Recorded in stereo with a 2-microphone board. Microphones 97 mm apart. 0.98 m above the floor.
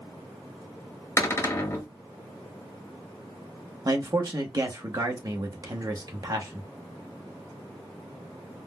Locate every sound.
1.2 s a cupboard door: 30° left (ahead or behind), 0.8 m
3.9 s a man speaking: 40° right (ahead or behind), 0.8 m